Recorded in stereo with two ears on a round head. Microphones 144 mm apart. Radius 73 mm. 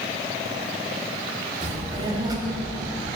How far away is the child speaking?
About 1.5 m.